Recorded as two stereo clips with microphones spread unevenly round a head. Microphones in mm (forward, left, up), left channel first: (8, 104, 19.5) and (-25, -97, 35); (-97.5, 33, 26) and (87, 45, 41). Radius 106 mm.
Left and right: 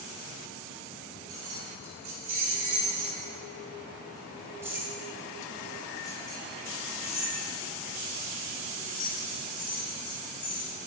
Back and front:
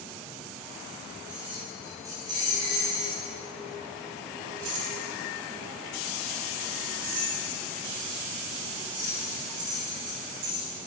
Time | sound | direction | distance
1.3 | keys jangling | 80° right | 1.9 m